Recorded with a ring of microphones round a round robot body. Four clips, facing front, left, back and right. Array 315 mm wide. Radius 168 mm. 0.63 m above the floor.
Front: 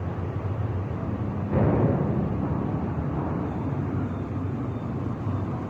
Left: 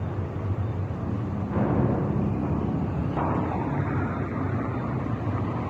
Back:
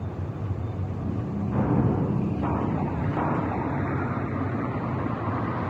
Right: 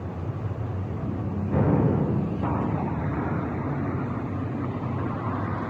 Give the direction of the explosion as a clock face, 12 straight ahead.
1 o'clock.